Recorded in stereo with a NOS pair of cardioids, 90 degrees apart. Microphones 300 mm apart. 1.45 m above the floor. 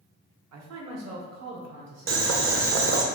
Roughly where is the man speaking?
Ahead right.